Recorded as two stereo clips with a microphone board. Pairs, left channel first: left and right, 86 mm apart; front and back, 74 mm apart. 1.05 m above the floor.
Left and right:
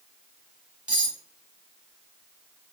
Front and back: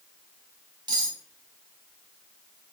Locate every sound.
0.9 s cutlery clinking: 165° right, 1.3 m